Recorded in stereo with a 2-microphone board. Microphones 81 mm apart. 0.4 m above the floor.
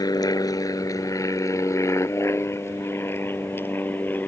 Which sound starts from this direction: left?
An aircraft, at 0.0 s.